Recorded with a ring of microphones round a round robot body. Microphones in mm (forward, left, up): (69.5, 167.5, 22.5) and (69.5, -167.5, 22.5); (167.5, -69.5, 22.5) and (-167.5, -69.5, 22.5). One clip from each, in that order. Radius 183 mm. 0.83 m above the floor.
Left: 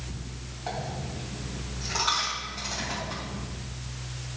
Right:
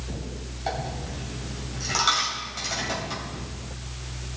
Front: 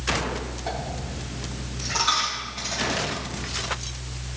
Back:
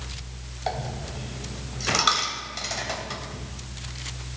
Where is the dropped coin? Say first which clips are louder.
Right 3 dB, back 4 dB; 160° right, 2.5 m.